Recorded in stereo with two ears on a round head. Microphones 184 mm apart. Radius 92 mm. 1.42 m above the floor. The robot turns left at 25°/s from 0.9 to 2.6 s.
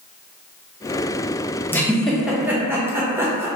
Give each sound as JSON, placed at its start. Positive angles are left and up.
{"t": 1.7, "sound": "a giggle", "side_deg": 10, "distance_m": 0.6}